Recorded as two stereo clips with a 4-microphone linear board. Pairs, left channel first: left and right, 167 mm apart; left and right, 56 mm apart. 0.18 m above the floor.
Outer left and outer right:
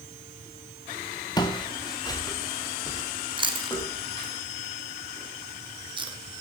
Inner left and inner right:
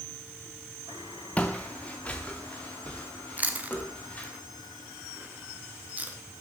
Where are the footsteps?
25° left (ahead or behind), 1.6 m.